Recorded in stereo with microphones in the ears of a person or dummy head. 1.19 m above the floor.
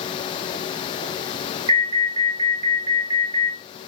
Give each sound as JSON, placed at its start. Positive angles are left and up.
{"t": 1.7, "sound": "an alarm", "side_deg": -25, "distance_m": 3.5}